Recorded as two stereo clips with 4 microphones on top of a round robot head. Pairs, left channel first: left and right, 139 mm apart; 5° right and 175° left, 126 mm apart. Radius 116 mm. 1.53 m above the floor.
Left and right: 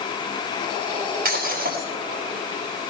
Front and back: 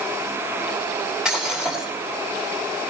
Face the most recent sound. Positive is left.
turn(degrees=-100)